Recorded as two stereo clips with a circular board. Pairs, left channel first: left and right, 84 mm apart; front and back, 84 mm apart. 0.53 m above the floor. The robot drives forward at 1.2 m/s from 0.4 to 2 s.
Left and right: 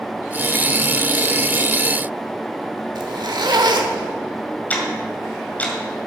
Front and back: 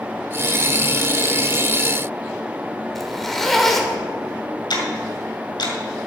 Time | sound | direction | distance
3.0 | a zipper | 85° right | 1.3 m
4.7 | ticking | 20° left | 2 m